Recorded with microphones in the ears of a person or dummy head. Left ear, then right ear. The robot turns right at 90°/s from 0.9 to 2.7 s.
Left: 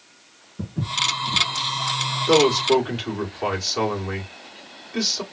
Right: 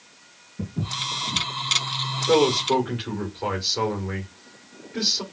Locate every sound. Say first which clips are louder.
0.6 s footsteps: left 5 dB; 15° left (ahead or behind), 1.8 m; by 1.4 s 25° left (ahead or behind), 1.8 m
2.3 s a man speaking: left 2 dB; 75° left, 2 m; by 5.2 s 115° left, 2 m